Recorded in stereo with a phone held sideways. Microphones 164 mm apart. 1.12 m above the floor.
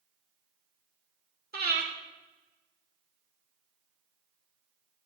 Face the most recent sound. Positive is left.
turn(degrees=-70)  # may be behind; listen again after turning